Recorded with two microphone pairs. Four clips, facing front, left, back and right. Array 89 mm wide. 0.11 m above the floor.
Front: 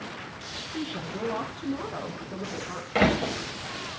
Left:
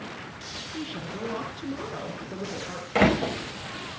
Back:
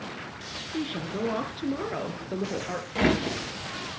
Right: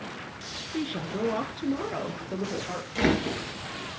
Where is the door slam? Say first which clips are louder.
Left 4 dB, front 2 dB; 55° left, 4.5 m.